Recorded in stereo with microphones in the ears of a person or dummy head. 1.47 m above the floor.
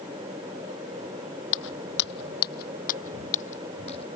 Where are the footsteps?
65° left (ahead or behind); by 4.0 s 35° left (ahead or behind).